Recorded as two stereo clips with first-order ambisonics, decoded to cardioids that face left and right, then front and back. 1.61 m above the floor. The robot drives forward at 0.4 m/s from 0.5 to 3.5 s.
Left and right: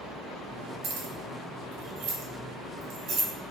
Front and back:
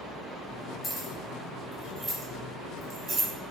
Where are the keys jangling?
70° right, 1.1 m; by 3.3 s 125° right, 1.2 m.